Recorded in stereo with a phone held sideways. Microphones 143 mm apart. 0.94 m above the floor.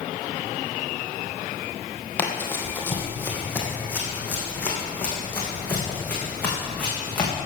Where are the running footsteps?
15° left (ahead or behind), 2 m; by 7.3 s 10° left (ahead or behind), 5 m.